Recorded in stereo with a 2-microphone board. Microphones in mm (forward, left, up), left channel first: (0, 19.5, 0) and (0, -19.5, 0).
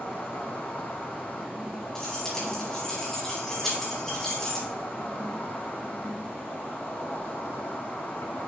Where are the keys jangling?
15° left (ahead or behind), 3.5 m.